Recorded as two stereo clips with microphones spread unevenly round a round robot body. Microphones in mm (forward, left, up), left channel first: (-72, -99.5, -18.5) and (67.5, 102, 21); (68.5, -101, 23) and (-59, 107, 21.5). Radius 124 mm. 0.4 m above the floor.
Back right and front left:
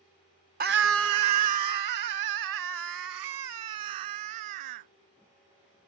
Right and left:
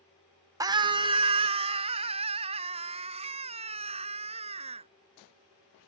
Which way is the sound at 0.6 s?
65° left.